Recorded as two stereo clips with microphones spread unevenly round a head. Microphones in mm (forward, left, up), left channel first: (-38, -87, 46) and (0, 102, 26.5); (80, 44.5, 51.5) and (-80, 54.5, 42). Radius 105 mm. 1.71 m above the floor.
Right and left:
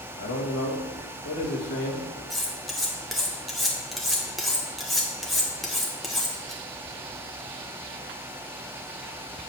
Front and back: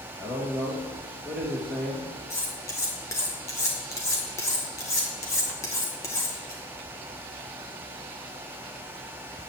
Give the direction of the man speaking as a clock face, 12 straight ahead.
3 o'clock.